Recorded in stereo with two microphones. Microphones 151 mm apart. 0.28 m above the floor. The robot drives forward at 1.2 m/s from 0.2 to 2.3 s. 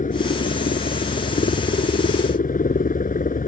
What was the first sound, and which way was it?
A helicopter, 60° left (ahead or behind).